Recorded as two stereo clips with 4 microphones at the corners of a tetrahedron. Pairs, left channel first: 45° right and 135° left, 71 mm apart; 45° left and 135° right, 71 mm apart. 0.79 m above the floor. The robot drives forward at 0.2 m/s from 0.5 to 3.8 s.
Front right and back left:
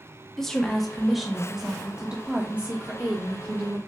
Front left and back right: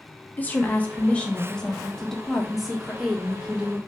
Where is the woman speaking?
30° left, 0.7 m; by 3.8 s 160° left, 0.8 m.